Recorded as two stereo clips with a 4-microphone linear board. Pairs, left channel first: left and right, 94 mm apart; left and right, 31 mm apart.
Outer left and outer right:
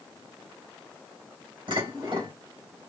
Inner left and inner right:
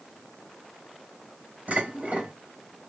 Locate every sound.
1.7 s dishes clattering: 65° right (ahead or behind), 3.5 m